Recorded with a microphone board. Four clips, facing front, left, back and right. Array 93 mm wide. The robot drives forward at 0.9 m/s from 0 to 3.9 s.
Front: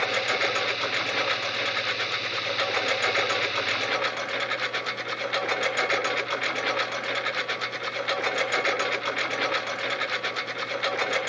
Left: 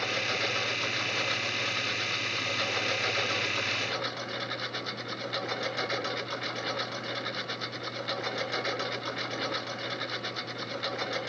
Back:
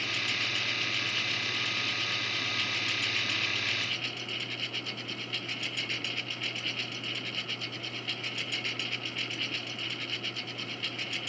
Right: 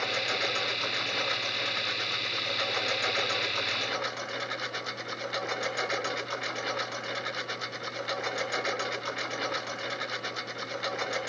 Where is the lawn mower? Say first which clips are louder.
Even, front 9 dB; 5° right.